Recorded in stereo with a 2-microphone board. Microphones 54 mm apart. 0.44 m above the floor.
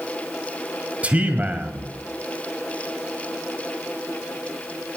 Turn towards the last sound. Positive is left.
turn(degrees=-30)  # may be behind; listen again after turning